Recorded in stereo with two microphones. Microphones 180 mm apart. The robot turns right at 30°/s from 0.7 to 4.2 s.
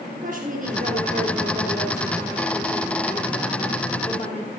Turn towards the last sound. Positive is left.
turn(degrees=45)